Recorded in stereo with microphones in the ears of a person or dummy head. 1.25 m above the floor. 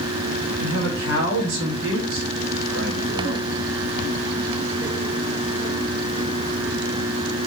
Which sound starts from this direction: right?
A man speaking, at 0.6 s.